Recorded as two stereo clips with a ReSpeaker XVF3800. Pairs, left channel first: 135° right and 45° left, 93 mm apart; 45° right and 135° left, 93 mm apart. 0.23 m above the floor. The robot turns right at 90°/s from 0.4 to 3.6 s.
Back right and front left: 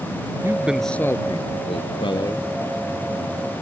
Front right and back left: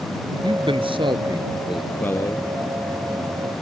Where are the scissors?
I don't hear scissors.